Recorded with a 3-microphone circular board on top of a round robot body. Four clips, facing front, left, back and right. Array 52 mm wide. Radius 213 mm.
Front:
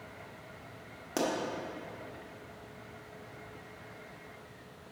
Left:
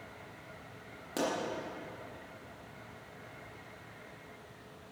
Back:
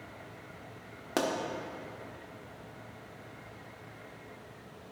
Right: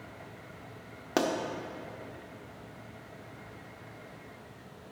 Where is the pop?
110° right, 1.7 m.